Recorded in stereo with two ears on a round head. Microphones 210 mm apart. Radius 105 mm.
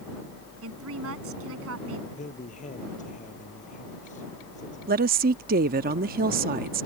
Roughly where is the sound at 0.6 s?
Right.